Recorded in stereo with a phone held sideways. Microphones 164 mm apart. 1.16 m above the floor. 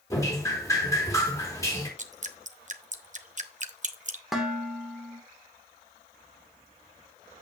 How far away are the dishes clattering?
About 2.5 m.